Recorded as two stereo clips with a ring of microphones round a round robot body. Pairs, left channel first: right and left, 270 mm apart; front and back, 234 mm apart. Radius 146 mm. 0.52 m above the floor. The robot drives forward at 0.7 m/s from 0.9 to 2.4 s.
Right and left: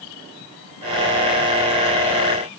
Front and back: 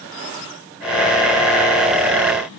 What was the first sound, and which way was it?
Only background noise.